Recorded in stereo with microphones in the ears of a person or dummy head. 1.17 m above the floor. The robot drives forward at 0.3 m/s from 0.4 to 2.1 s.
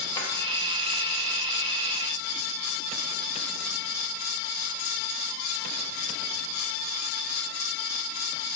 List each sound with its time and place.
0.1 s a drawer: 20° left (ahead or behind), 1.0 m